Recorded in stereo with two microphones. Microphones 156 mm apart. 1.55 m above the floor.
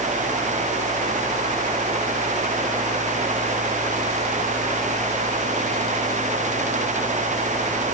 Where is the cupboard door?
I don't hear a cupboard door.